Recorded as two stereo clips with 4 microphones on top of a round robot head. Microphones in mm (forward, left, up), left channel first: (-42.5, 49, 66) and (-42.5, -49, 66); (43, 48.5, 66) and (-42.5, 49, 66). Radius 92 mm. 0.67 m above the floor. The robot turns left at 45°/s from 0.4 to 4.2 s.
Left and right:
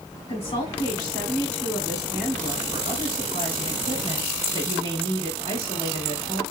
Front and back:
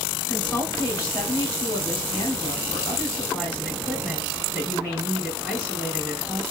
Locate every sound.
0.3 s a woman speaking: 70° left, 2.5 m; by 6.4 s 105° right, 2.5 m